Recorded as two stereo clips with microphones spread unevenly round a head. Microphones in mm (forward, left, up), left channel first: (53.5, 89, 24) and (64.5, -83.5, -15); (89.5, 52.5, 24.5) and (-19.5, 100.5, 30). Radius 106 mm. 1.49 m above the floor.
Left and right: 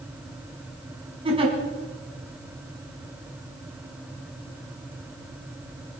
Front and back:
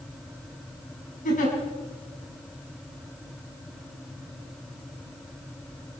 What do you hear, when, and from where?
1.2 s a giggle: 25° right, 4.5 m